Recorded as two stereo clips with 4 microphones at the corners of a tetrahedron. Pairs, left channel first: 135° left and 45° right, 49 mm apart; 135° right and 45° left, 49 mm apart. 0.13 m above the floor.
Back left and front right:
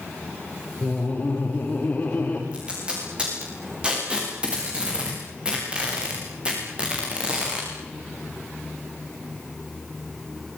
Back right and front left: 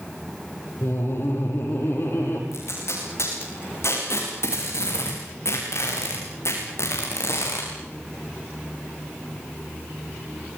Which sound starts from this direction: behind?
Laughter, at 0.8 s.